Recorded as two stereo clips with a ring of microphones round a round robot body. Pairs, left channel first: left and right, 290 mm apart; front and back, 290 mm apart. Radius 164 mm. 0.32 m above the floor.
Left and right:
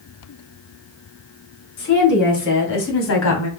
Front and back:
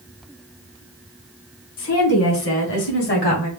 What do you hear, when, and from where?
1.8 s a woman speaking: 35° left, 3 m; by 3.5 s 60° left, 1.8 m